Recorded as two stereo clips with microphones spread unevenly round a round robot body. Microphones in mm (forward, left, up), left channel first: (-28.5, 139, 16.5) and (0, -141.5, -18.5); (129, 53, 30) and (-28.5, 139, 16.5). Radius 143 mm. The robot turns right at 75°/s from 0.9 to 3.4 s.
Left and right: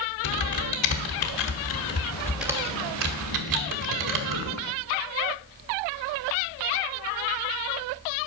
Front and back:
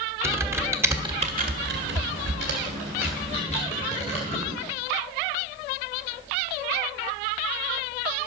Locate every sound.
0.2 s typing on a keyboard: 75° left, 1.5 m; by 4.6 s 95° right, 1.5 m